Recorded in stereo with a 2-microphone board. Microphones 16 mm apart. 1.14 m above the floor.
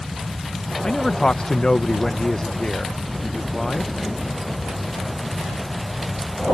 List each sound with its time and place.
0.8 s a man speaking: 45° left (ahead or behind)